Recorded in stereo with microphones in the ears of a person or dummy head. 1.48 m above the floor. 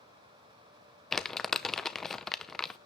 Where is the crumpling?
Centre (ahead or behind), 0.7 m.